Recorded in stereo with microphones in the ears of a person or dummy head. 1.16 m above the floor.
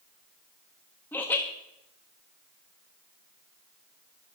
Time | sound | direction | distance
1.1 | laughter | 10° left (ahead or behind) | 1.4 m